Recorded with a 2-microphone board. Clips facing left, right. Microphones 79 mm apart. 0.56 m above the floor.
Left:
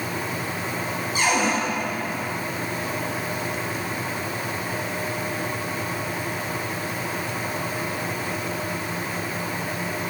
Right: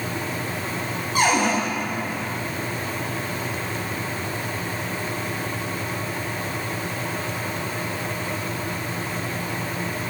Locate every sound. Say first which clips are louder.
1.1 s a cupboard door: right 3 dB; 55° right (ahead or behind), 2.5 m